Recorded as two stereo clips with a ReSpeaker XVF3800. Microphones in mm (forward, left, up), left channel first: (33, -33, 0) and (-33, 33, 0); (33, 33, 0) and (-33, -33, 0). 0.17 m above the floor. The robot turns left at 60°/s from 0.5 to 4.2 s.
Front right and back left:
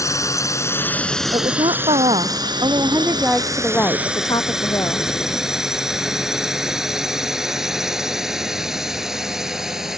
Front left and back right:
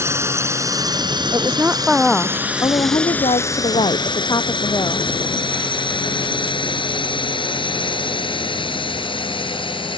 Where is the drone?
85° right; by 10.0 s 50° left.